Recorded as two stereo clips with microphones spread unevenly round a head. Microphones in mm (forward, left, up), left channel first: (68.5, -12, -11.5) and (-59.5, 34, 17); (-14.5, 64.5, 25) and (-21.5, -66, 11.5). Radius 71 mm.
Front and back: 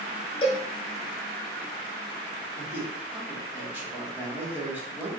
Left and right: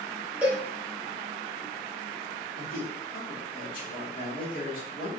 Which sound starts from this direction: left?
A man speaking, at 2.6 s.